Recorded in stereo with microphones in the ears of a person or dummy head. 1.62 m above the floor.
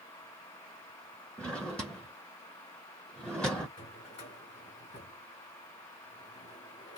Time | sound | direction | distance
1.4 | a drawer | 5° left (ahead or behind) | 0.7 m
3.8 | a drawer | 35° left (ahead or behind) | 1.8 m